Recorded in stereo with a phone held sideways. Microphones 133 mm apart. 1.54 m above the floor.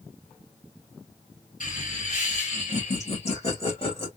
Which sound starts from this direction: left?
Laughter, at 1.6 s.